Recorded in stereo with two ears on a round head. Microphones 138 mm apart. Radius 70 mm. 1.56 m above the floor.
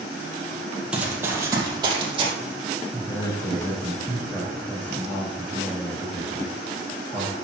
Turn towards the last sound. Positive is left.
turn(degrees=15)  # may be behind; listen again after turning